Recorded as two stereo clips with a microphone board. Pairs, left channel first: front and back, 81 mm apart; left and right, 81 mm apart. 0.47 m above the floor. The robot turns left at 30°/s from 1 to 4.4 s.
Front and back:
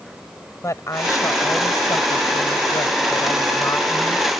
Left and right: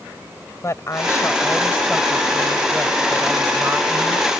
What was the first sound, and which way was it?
A woman speaking, 45° left.